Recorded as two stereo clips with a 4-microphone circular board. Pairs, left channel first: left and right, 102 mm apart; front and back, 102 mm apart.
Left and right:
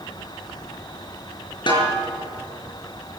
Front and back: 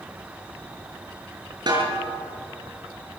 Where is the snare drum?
135° left, 6.5 m.